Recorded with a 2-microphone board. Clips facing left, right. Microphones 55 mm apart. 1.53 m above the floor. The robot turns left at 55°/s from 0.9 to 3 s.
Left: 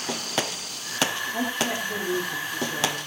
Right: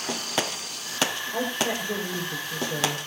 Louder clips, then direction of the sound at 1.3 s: Right 1 dB; 60° right.